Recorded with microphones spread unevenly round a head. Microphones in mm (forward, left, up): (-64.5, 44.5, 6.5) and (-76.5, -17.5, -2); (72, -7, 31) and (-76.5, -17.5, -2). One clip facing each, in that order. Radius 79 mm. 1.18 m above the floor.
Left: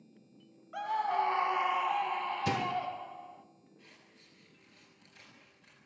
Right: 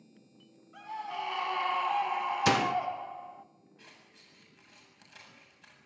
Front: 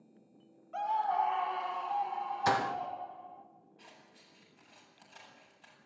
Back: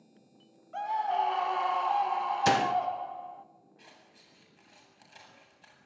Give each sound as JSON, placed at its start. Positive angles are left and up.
{"t": 0.7, "sound": "a scream", "azimuth_deg": 95, "distance_m": 0.6}
{"t": 2.5, "sound": "a door slam", "azimuth_deg": -115, "distance_m": 0.7}
{"t": 3.8, "sound": "scissors", "azimuth_deg": -95, "distance_m": 8.5}